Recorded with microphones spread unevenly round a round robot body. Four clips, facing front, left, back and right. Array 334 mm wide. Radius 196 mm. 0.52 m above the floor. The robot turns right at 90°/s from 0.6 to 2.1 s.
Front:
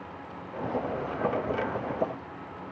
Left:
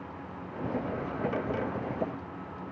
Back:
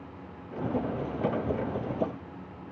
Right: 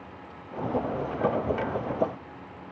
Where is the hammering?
I don't hear hammering.